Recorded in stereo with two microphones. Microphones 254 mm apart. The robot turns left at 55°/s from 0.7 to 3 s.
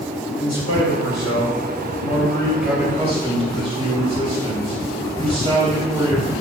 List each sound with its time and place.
0.4 s a man speaking: 105° left, 3 m; by 6.3 s 20° right, 3 m